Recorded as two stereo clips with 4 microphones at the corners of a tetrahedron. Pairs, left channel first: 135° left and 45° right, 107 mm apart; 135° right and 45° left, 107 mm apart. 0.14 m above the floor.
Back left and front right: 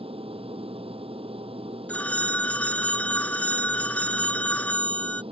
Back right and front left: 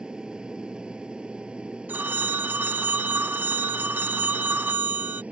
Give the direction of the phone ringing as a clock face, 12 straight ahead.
9 o'clock.